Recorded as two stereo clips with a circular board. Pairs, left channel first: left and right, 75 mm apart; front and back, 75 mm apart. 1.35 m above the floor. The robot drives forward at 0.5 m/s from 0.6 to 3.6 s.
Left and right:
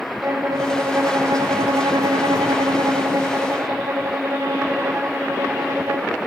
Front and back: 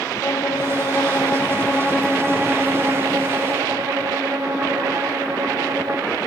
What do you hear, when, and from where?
0.2 s a violin: 40° right, 1.0 m; by 6.1 s 135° right, 1.0 m